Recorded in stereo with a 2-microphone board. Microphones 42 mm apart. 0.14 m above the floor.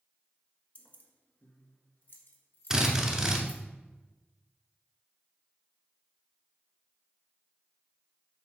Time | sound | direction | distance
0.8 | keys jangling | 35° left (ahead or behind) | 1.1 m
2.7 | a drill | 20° right (ahead or behind) | 1.2 m